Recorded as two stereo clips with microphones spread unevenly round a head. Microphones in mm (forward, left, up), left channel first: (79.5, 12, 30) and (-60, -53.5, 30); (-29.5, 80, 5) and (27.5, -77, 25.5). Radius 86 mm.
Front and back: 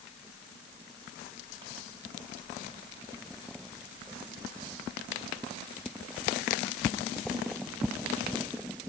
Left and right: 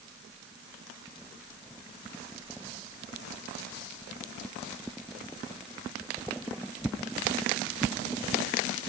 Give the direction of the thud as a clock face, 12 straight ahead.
I don't hear a thud.